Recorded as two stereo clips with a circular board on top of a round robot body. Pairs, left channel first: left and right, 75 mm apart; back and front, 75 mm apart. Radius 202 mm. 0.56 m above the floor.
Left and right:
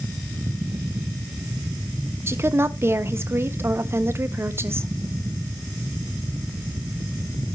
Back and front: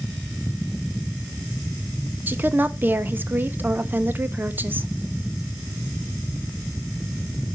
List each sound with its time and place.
2.3 s a woman speaking: 50° right, 1.0 m